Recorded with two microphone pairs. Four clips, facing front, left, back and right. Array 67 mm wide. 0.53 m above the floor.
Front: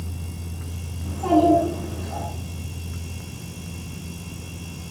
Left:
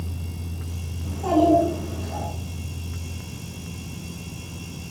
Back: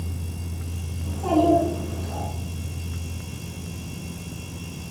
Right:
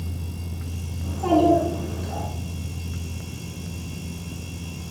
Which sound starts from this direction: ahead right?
A child speaking, at 1.0 s.